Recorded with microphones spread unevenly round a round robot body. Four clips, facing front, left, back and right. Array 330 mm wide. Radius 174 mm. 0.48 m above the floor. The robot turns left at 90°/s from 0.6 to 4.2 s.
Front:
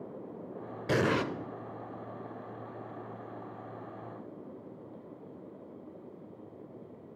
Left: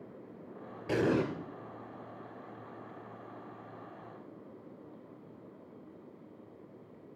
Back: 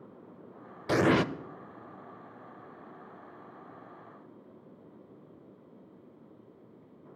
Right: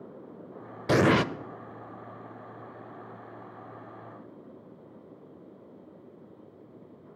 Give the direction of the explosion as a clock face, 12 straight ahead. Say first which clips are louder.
Right 7 dB, back 4 dB; 2 o'clock.